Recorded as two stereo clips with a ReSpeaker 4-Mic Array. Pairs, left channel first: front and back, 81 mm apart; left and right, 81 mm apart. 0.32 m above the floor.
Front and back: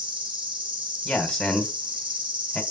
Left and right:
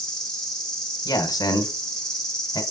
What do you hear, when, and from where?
0.0 s an insect: 175° left, 5 m
1.1 s a man speaking: 85° left, 2 m